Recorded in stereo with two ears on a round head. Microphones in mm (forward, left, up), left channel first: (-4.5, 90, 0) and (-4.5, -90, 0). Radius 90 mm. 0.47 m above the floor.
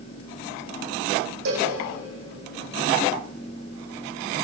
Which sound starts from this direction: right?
A cowbell, at 1.4 s.